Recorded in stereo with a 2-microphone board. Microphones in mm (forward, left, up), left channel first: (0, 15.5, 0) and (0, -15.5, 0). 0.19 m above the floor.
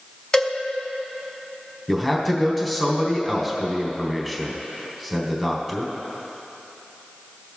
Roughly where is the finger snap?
I don't hear a finger snap.